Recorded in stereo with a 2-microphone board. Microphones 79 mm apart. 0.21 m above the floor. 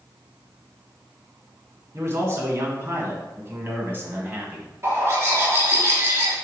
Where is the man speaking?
35° right (ahead or behind), 2.5 m; by 4.7 s 25° right (ahead or behind), 1.7 m.